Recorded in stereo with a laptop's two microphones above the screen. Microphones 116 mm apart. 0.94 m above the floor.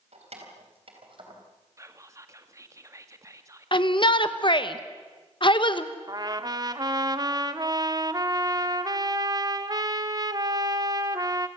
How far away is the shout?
About 1.0 m.